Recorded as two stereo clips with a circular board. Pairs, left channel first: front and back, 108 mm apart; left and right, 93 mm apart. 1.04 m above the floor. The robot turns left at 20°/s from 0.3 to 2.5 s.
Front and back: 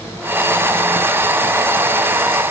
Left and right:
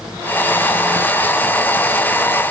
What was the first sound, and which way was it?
Only background noise.